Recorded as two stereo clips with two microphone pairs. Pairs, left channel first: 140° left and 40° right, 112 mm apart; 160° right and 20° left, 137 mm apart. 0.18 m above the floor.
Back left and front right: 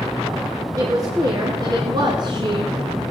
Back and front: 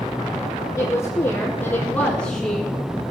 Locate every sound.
0.8 s a woman speaking: 95° right, 2.5 m; by 2.7 s 70° right, 1.7 m